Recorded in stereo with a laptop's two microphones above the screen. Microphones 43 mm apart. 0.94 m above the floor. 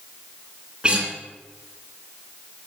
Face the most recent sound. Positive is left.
turn(degrees=-25)  # may be behind; listen again after turning